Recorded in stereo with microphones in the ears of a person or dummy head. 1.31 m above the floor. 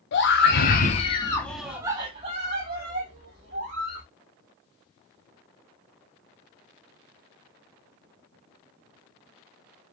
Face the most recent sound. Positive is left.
turn(degrees=-65)  # may be behind; listen again after turning